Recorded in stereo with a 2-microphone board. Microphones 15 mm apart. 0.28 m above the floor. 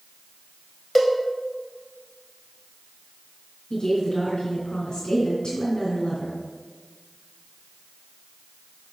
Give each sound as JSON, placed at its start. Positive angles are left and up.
{"t": 0.9, "sound": "a cowbell", "side_deg": 10, "distance_m": 1.1}
{"t": 3.7, "sound": "a woman speaking", "side_deg": 60, "distance_m": 2.0}